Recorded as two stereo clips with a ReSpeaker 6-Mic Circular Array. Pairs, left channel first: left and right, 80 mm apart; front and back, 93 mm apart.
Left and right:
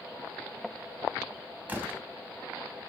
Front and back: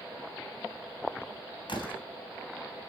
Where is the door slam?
20° right, 2.5 m.